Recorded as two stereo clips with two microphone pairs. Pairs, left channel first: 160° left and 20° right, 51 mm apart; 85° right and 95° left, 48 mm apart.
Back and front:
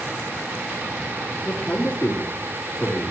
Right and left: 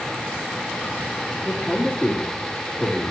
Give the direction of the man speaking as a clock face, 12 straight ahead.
5 o'clock.